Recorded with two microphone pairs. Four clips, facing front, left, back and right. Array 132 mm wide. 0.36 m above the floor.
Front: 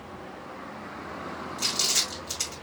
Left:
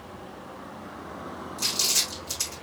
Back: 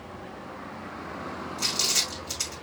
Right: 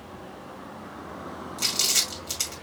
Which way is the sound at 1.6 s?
95° right.